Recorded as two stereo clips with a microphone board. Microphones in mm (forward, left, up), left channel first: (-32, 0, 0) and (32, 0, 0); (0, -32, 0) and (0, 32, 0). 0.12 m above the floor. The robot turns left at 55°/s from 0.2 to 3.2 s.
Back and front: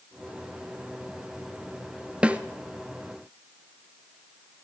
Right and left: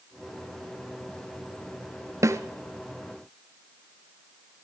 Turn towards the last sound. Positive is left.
turn(degrees=15)